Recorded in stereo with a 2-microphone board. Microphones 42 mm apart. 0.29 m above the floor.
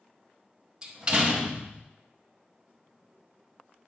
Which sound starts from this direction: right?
A door slam, at 0.8 s.